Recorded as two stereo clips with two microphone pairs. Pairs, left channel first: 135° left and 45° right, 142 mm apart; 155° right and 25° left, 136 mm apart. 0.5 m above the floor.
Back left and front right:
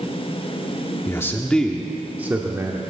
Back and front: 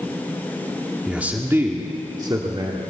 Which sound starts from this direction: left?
A man speaking, at 1.1 s.